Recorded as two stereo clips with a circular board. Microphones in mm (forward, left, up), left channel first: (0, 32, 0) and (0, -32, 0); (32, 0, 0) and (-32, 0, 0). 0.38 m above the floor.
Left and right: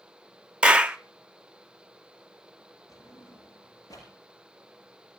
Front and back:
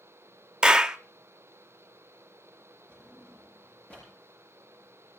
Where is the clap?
130° right, 0.7 m.